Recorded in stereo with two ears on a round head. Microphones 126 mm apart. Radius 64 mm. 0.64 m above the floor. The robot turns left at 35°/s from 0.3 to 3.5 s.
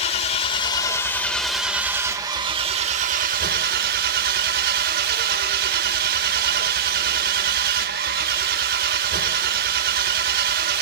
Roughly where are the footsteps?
I don't hear footsteps.